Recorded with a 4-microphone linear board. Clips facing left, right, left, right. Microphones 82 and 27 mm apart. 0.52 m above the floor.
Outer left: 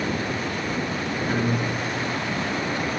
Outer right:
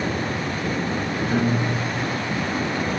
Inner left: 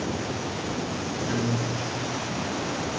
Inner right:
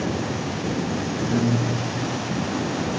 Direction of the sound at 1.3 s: 40° left (ahead or behind).